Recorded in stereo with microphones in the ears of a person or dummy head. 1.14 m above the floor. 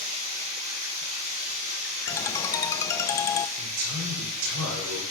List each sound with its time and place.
0.0 s running water: 35° right (ahead or behind), 2 m
2.1 s a ringtone: 20° left (ahead or behind), 0.5 m
3.6 s a man speaking: 85° right, 3 m